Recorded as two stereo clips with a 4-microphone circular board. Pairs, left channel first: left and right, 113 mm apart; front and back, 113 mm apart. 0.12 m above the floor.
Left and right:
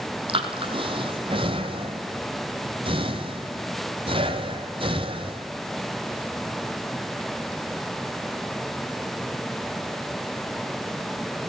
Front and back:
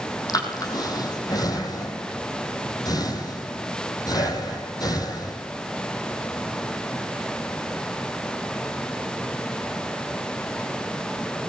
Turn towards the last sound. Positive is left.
turn(degrees=-55)